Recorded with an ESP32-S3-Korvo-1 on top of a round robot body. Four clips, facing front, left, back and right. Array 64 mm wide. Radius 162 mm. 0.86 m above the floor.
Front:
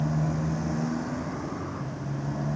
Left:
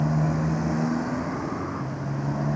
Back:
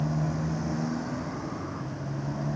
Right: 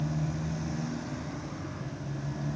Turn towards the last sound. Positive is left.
turn(degrees=85)